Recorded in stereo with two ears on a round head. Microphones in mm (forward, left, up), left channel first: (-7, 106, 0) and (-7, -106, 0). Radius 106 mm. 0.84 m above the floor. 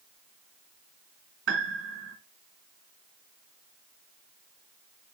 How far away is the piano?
About 1.9 m.